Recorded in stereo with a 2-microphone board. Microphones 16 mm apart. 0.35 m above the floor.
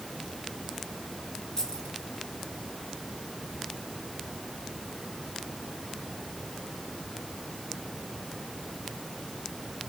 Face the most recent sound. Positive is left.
turn(degrees=40)  # may be behind; listen again after turning